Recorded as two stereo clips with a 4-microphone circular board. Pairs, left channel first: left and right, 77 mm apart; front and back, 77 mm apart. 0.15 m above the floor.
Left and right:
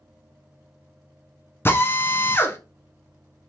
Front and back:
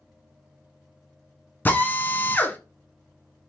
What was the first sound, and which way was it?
A drill, 50° left.